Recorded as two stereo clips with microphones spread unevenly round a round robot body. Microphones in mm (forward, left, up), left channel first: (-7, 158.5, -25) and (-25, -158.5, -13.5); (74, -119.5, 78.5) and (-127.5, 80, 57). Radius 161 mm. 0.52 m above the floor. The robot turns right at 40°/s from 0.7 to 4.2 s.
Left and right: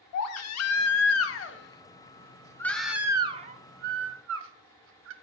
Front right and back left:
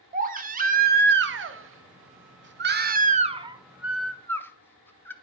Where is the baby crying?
90° left, 0.7 m; by 5.1 s 130° right, 0.7 m.